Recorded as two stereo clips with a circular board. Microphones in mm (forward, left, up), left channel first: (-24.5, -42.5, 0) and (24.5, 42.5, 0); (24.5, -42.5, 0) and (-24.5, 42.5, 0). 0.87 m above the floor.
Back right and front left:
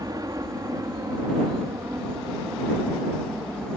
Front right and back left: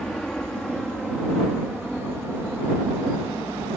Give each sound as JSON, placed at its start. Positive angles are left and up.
{"t": 0.0, "sound": "a helicopter", "azimuth_deg": 25}